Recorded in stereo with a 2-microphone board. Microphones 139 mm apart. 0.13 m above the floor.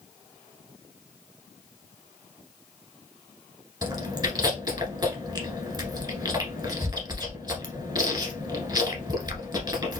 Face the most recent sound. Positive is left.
turn(degrees=-30)  # may be behind; listen again after turning